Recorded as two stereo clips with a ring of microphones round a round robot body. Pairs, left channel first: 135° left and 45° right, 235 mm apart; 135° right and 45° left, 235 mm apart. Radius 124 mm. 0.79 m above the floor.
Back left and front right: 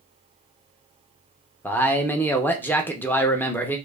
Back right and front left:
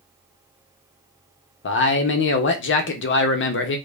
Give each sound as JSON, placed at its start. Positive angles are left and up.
{"t": 1.6, "sound": "a man speaking", "azimuth_deg": -145, "distance_m": 0.8}